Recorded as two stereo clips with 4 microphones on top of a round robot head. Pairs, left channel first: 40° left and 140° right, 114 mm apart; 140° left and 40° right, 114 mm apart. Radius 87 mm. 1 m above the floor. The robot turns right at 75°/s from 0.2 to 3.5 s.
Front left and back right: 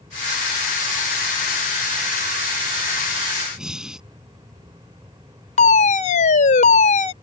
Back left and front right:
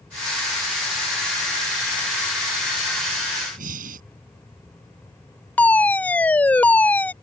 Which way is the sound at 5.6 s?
60° left.